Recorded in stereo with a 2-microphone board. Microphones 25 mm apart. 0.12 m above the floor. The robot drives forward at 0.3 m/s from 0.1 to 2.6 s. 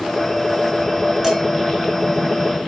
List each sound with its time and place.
1.2 s dishes clattering: 15° right (ahead or behind), 0.8 m